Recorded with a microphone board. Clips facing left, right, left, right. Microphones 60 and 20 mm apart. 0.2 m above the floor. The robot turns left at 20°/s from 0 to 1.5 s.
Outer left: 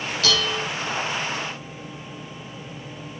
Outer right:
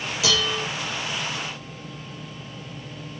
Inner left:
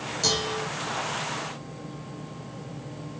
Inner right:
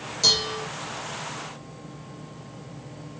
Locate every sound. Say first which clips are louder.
0.2 s dishes clattering: even, inner right 5 dB; 10° right (ahead or behind), 2.5 m; by 0.7 s 5° right (ahead or behind), 2.5 m